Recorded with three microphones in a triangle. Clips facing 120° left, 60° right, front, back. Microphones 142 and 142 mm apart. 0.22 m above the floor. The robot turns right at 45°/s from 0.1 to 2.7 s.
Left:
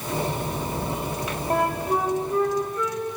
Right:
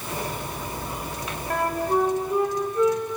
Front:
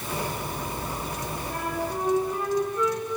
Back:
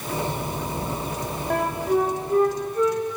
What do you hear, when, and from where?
1.5 s a flute: 175° right, 5 m; by 3.0 s 120° right, 5 m